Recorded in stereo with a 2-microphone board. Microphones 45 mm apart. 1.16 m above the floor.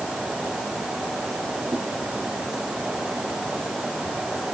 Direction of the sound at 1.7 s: 55° right (ahead or behind).